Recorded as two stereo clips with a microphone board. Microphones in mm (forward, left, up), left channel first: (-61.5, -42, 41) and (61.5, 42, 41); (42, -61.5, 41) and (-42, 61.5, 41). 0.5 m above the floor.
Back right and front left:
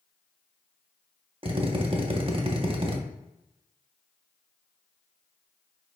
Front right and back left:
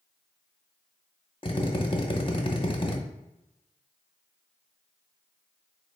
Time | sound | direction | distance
1.4 | a drill | 5° right | 0.7 m